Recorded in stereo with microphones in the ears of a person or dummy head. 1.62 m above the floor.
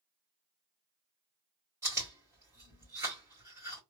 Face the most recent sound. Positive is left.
turn(degrees=-15)  # may be behind; listen again after turning